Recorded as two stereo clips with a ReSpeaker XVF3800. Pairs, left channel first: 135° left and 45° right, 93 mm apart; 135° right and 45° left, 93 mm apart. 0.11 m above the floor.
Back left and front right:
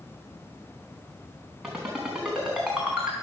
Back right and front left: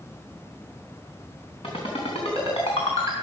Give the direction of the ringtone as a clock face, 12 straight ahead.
4 o'clock.